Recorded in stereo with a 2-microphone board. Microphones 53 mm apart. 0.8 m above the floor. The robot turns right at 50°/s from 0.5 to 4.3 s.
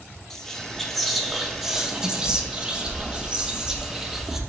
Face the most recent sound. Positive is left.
turn(degrees=-5)  # may be behind; listen again after turning